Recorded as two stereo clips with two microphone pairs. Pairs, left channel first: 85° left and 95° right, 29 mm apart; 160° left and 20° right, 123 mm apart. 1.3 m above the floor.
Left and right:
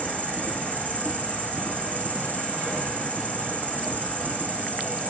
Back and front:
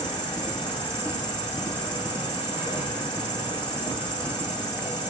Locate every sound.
0.0 s an insect: 110° left, 6.5 m